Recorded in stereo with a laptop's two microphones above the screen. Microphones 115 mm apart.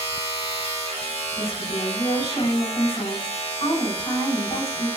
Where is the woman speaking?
55° left (ahead or behind), 3 m.